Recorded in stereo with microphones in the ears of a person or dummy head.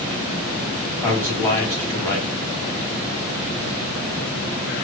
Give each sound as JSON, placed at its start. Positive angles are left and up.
{"t": 1.0, "sound": "a man speaking", "side_deg": 15, "distance_m": 1.7}